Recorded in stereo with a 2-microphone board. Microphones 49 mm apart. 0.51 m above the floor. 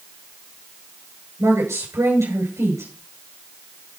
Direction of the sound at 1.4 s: 75° right (ahead or behind).